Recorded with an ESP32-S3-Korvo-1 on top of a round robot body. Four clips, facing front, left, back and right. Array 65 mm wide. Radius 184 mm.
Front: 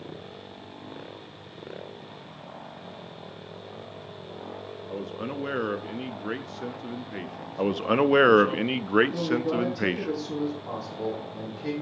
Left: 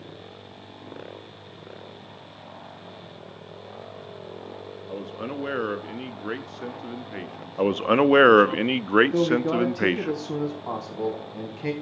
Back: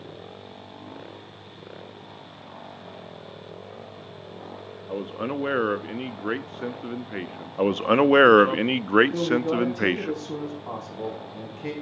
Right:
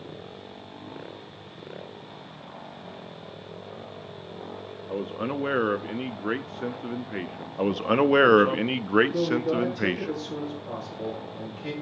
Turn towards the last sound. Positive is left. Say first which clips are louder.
# left 3 dB, back 3 dB
turn(degrees=105)